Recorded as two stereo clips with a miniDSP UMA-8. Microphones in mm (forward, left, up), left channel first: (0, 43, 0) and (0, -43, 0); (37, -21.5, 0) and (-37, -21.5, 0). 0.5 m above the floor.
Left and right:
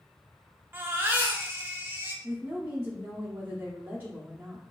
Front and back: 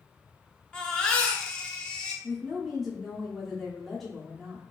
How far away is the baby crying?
About 0.6 m.